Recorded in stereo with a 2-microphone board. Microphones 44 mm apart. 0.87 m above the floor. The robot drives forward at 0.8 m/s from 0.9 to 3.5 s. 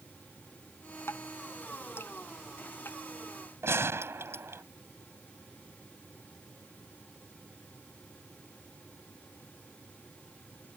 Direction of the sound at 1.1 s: 65° left (ahead or behind).